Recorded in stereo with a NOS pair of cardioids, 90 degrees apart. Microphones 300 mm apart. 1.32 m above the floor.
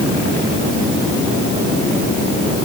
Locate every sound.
Only background noise.